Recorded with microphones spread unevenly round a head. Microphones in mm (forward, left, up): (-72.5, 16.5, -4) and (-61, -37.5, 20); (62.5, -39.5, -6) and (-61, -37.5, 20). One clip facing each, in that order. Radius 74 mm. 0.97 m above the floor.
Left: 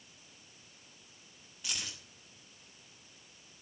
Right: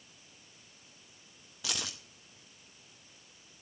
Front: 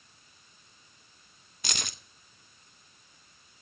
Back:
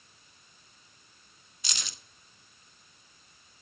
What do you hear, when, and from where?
1.6 s keys jangling: 35° right, 0.6 m